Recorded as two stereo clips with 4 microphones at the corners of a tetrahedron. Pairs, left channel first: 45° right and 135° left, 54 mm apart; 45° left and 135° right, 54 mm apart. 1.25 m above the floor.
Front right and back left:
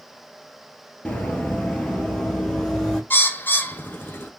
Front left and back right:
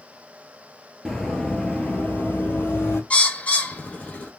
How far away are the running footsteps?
About 1.3 m.